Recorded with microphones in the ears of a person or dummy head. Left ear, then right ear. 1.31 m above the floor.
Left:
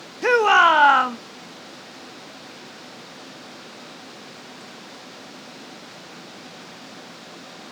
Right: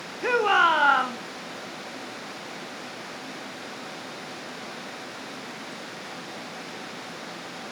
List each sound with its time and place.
0.2 s a shout: 35° left (ahead or behind), 0.6 m